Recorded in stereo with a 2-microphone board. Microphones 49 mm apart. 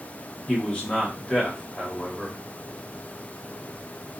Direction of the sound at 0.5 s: 20° left (ahead or behind).